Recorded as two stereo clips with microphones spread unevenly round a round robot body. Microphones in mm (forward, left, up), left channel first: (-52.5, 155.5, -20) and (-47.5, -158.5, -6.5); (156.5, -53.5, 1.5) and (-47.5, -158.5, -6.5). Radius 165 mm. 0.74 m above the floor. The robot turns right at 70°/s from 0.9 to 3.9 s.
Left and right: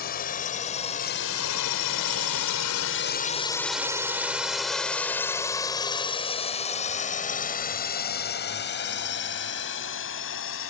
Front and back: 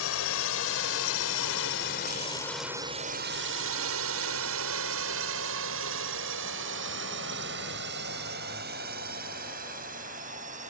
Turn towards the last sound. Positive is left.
turn(degrees=140)